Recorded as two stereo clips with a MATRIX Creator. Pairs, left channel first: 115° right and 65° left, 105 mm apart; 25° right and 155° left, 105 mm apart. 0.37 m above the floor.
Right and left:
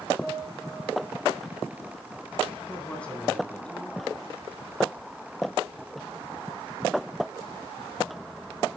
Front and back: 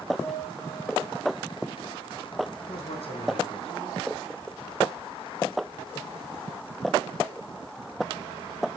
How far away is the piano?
About 5 m.